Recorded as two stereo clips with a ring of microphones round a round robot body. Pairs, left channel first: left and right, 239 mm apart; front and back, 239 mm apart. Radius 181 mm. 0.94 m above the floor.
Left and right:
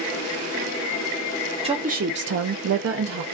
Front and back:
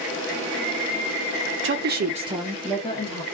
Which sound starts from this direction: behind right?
A woman speaking, at 1.6 s.